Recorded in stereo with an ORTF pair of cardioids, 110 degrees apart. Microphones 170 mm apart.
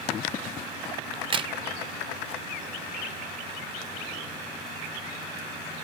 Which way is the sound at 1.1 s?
30° right.